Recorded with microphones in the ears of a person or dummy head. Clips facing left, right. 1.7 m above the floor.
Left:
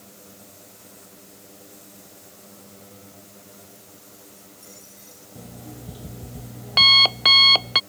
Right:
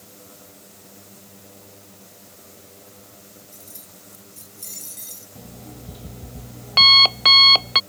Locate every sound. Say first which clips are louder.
3.5 s keys jangling: even; 50° right (ahead or behind); by 5.2 s 45° right (ahead or behind)
5.3 s an alarm clock: left 1 dB; 5° left (ahead or behind)